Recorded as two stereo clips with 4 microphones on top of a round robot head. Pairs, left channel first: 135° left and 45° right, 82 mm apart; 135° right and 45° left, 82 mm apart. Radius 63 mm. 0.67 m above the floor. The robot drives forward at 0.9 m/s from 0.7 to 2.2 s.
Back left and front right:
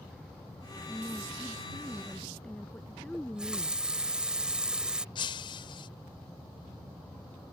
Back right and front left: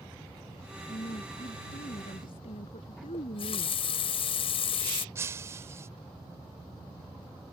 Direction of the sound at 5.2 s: 105° left.